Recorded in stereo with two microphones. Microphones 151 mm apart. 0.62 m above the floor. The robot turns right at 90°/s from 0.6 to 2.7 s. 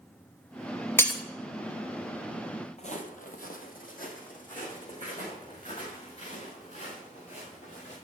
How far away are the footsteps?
About 1.1 m.